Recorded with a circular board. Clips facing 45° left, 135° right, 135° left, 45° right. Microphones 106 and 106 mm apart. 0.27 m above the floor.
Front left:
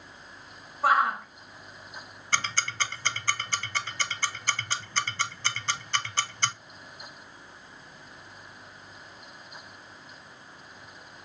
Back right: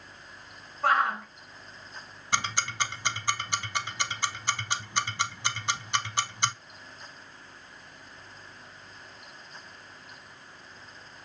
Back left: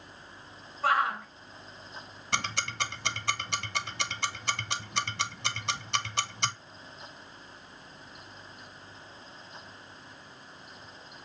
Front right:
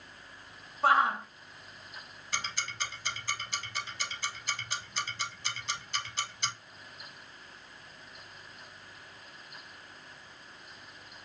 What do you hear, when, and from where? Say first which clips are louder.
0.8 s a shout: front left 2 dB, front right 2 dB; 30° right, 1.0 m
2.3 s ticking: back right 1 dB, back left 6 dB; 150° left, 0.6 m